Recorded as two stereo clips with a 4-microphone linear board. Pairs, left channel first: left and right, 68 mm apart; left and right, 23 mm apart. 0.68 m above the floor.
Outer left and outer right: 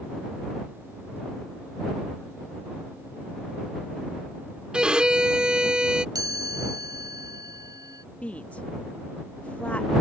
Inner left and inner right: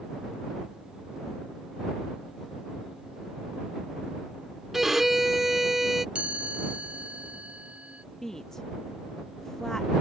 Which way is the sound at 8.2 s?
20° left (ahead or behind).